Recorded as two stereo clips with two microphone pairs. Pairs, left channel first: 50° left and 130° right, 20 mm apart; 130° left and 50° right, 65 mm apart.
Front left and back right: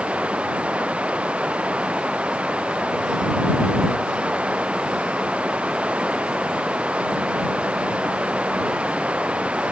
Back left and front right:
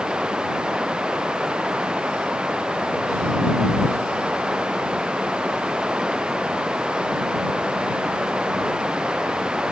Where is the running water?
130° right.